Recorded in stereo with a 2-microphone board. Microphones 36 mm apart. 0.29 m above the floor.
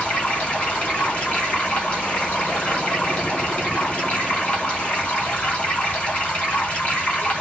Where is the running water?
50° left (ahead or behind), 3 m.